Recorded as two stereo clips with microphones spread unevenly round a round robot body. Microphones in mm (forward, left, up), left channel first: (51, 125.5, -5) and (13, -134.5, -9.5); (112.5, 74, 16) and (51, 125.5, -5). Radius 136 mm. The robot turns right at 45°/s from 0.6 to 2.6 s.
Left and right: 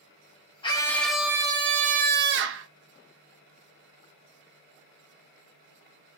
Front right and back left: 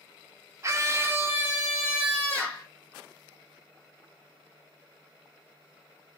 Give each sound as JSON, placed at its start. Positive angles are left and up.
{"t": 0.6, "sound": "a scream", "azimuth_deg": 150, "distance_m": 0.6}